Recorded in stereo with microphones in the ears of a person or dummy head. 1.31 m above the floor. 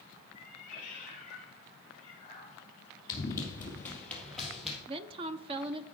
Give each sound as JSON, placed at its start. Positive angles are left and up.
{"t": 0.3, "sound": "a cat meowing", "side_deg": 45, "distance_m": 5.0}
{"t": 3.1, "sound": "running footsteps", "side_deg": 25, "distance_m": 1.7}
{"t": 4.9, "sound": "a woman speaking", "side_deg": -30, "distance_m": 0.5}